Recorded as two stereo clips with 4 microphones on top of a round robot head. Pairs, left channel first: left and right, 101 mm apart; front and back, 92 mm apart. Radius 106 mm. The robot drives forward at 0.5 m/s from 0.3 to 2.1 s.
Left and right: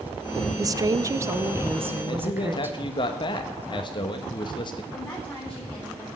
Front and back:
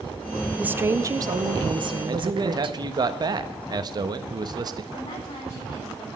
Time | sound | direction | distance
0.6 | a woman speaking | 110° right | 0.6 m
2.0 | a man speaking | 135° left | 1.1 m
4.9 | a woman speaking | 15° left | 4 m